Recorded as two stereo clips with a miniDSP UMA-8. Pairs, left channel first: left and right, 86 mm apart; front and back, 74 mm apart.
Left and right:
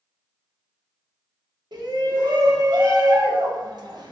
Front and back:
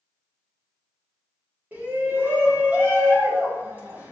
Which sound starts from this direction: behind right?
A shout, at 1.7 s.